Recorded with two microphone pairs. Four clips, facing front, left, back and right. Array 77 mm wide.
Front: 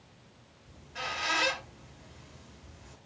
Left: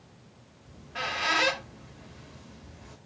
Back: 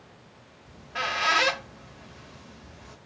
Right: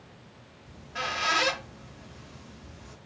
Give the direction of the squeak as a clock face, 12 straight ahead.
6 o'clock.